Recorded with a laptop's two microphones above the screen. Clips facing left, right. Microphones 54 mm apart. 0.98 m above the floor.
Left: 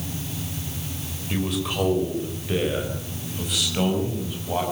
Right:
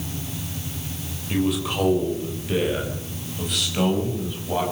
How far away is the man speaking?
About 4 m.